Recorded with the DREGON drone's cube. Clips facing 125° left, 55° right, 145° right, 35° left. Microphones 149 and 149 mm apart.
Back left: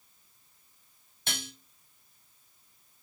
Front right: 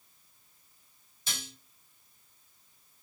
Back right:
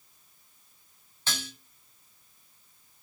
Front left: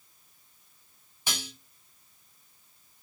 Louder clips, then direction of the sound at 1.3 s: Back left 4 dB, even; 110° left.